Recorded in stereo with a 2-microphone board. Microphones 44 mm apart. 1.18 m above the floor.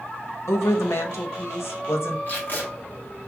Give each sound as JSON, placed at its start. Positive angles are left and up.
{"t": 0.5, "sound": "a woman speaking", "side_deg": 75, "distance_m": 0.8}
{"t": 2.3, "sound": "tape being pulled", "side_deg": 45, "distance_m": 1.2}